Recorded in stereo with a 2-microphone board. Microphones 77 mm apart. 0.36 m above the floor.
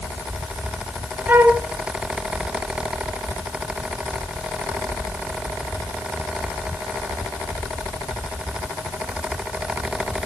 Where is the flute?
25° right (ahead or behind), 1.3 m.